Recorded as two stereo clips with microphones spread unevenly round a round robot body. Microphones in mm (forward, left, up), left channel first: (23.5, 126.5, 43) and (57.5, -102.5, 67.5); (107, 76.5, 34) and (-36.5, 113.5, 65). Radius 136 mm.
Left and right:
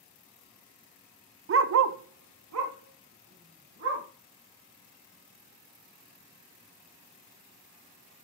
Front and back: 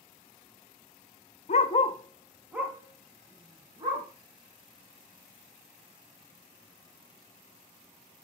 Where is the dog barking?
50° right, 0.6 m; by 4.1 s 125° right, 2 m.